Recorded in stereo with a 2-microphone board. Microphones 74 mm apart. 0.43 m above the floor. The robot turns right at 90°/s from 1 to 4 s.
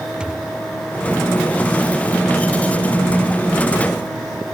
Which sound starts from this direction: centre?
A thud, at 0.2 s.